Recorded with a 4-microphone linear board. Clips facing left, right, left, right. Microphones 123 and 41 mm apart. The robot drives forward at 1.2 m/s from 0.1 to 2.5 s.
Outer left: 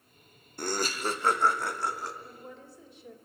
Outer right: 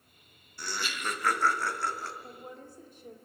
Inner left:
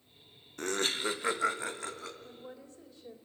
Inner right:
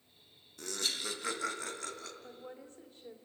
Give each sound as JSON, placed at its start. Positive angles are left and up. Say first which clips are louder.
{"t": 0.6, "sound": "laughter", "louder": "outer left 6 dB, inner left 6 dB", "side_deg": 50, "distance_m": 0.7}
{"t": 2.2, "sound": "a woman speaking", "louder": "outer right 1 dB, even", "side_deg": -50, "distance_m": 2.0}